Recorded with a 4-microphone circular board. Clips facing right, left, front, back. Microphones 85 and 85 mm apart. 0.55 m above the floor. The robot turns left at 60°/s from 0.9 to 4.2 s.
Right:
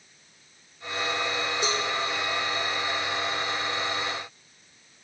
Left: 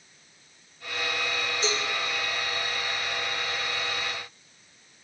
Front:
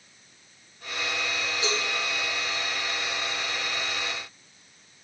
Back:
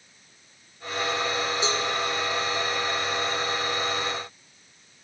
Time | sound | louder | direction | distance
1.6 | a cowbell | even, even | 110° right | 6.5 m